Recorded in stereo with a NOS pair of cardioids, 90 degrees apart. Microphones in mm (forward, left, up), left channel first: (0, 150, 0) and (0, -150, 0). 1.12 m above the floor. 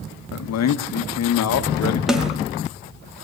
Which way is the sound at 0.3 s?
60° left.